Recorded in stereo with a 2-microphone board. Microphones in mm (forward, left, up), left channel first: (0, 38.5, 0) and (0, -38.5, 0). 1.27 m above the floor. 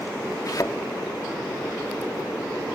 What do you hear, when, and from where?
0.5 s a thud: 50° left (ahead or behind), 1.0 m